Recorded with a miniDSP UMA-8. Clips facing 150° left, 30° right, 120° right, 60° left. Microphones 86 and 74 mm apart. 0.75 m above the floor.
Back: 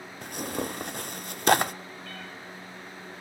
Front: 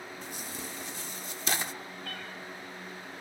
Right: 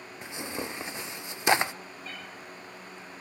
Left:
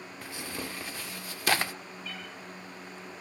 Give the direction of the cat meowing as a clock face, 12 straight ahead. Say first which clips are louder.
Even, left 1 dB; 2 o'clock.